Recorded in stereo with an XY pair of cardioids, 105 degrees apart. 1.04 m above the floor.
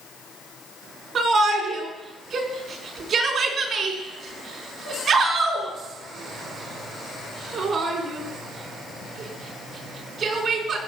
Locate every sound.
1.1 s a shout: 55° right, 3.5 m